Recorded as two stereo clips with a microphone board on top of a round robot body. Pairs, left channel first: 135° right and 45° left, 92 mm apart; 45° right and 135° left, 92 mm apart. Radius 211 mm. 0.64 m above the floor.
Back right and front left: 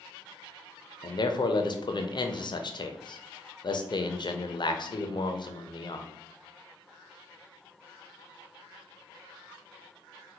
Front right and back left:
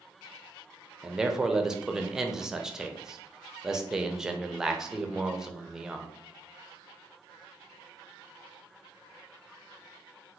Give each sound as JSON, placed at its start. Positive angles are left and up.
{"t": 1.0, "sound": "a man speaking", "azimuth_deg": -145, "distance_m": 0.6}